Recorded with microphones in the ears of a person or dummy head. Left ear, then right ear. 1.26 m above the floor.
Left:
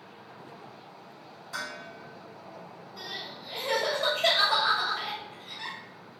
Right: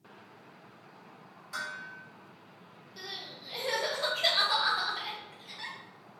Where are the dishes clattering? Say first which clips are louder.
Left 1 dB; 10° right (ahead or behind), 1.7 m.